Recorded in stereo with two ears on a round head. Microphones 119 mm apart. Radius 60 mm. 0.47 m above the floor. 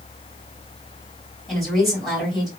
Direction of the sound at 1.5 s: Centre (ahead or behind).